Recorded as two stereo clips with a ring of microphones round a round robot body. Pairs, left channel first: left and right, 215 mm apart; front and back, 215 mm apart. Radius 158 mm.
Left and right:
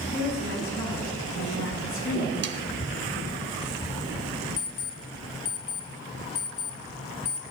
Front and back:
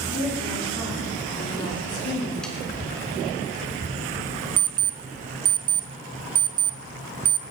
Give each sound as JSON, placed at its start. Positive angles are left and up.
{"t": 0.1, "sound": "a woman speaking", "azimuth_deg": 70, "distance_m": 9.5}
{"t": 2.4, "sound": "sawing", "azimuth_deg": -85, "distance_m": 1.1}
{"t": 4.6, "sound": "an alarm clock", "azimuth_deg": 145, "distance_m": 0.7}